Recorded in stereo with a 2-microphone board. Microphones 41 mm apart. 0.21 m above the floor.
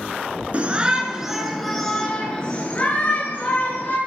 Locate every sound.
0.5 s a shout: 35° right (ahead or behind), 2.5 m; by 4.0 s 45° left (ahead or behind), 4.5 m